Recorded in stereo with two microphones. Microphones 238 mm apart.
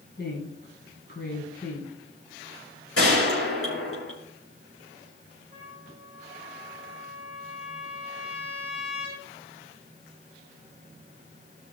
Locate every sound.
0.2 s a woman speaking: 45° left (ahead or behind), 1.8 m
3.0 s a gunshot: 65° left (ahead or behind), 4 m
5.5 s a trumpet: 30° right (ahead or behind), 6.5 m